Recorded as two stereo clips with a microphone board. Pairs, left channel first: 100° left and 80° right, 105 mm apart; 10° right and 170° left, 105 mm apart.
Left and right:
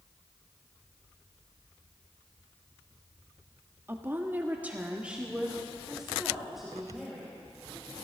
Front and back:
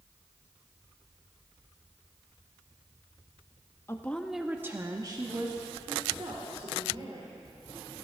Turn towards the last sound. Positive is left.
turn(degrees=-170)